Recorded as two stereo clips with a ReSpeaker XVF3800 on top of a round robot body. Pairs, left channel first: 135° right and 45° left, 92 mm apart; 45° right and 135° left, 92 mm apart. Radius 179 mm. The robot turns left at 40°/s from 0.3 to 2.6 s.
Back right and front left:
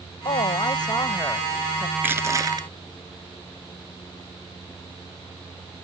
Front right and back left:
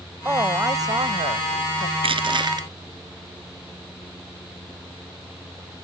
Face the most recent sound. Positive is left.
turn(degrees=90)